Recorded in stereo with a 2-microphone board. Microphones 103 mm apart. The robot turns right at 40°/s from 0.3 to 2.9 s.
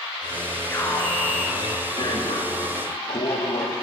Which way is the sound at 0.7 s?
20° left.